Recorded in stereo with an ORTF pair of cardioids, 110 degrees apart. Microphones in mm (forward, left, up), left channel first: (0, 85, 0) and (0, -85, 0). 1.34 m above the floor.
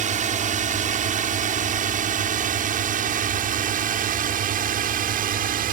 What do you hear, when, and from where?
0.0 s a drone: 50° right; by 5.7 s 60° right